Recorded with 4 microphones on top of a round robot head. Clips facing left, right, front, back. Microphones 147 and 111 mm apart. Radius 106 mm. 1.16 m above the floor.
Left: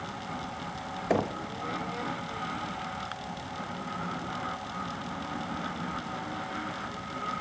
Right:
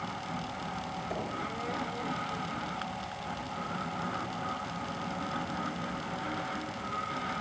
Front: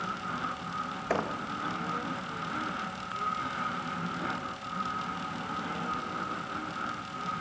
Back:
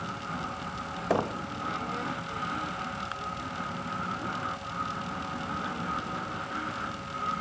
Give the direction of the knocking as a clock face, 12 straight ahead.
8 o'clock.